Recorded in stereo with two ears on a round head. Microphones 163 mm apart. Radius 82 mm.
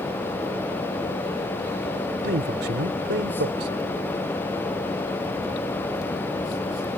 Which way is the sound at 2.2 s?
65° right (ahead or behind).